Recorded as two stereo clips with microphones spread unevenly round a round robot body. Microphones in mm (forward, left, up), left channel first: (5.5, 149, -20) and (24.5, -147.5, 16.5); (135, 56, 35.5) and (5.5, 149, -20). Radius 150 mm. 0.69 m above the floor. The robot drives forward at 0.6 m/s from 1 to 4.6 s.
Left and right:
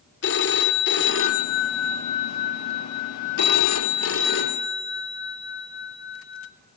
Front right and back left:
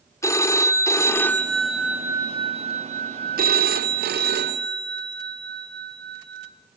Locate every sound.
0.2 s a phone ringing: 40° left, 1.2 m; by 6.5 s 150° left, 1.5 m